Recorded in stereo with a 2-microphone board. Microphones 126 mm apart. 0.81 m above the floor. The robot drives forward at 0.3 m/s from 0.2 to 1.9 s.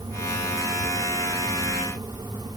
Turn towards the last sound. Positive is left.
No sound to turn to.